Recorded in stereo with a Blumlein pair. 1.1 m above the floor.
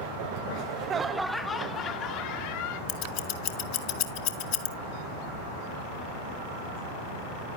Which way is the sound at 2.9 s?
45° left.